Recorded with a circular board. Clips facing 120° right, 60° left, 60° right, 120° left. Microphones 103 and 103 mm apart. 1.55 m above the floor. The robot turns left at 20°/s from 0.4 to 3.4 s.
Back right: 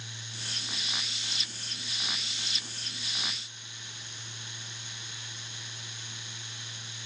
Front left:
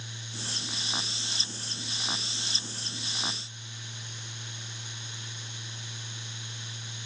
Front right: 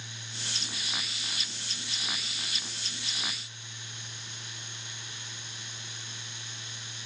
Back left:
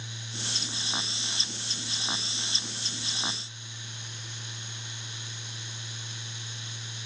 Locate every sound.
Only background noise.